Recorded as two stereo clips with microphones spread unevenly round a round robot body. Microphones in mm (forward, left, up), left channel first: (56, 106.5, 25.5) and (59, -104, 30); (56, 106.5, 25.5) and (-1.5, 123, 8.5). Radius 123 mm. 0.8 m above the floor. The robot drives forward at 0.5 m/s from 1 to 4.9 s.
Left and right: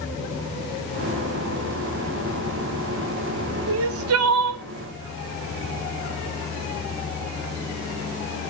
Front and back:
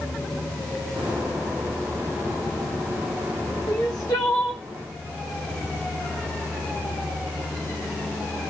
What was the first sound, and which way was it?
Crying, 60° right.